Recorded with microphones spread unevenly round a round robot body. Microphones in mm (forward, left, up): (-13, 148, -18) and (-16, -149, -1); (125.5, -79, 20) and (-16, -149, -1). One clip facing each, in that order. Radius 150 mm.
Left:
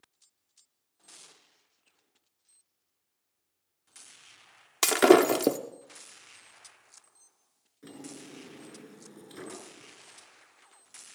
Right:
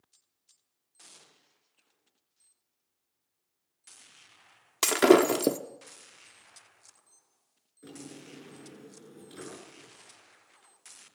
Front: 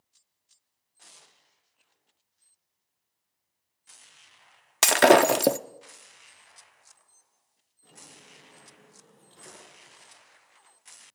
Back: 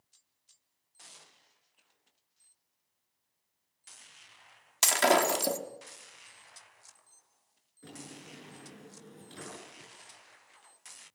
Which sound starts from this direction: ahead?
Breaking glass, at 4.8 s.